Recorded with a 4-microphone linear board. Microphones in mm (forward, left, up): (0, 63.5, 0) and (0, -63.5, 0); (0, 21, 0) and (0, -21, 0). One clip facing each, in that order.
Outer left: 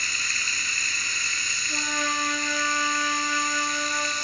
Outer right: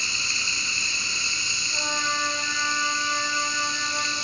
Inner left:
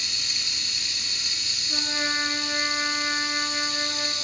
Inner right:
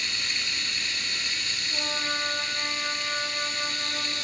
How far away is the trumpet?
About 6 m.